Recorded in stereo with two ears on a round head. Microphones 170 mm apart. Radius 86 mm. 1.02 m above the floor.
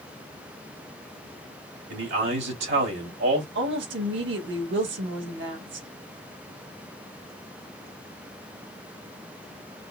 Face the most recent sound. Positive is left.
turn(degrees=-75)  # may be behind; listen again after turning